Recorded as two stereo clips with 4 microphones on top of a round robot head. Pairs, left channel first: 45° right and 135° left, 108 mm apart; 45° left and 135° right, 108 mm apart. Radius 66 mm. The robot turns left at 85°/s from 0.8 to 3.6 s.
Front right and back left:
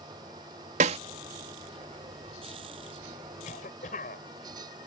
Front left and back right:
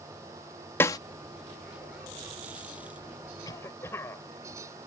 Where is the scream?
No scream in this recording.